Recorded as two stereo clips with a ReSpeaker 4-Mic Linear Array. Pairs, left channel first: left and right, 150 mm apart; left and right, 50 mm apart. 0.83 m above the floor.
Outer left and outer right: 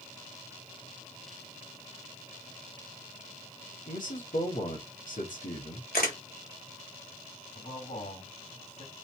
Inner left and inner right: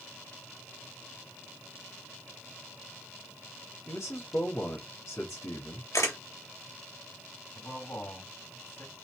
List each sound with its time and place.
3.9 s a man speaking: 60° left (ahead or behind), 2 m
5.9 s a camera shutter: 85° left, 1.9 m
7.5 s a man speaking: 55° left (ahead or behind), 3 m